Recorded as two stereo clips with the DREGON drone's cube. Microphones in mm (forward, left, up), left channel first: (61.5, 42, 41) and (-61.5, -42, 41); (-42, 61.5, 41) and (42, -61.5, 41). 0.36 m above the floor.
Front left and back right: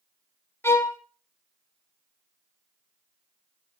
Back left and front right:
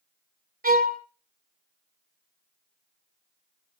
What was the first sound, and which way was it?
A violin, 40° right.